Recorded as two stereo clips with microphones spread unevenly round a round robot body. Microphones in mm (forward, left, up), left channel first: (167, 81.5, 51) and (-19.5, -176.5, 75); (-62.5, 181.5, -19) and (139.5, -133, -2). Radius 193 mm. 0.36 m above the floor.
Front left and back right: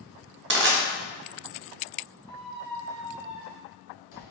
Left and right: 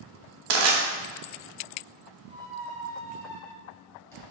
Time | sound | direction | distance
0.5 | crushing | 70° right | 0.8 m
2.2 | a squeak | 40° left | 1.9 m